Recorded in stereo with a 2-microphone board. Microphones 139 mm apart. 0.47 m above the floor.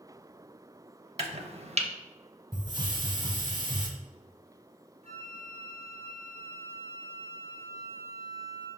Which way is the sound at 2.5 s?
35° right (ahead or behind).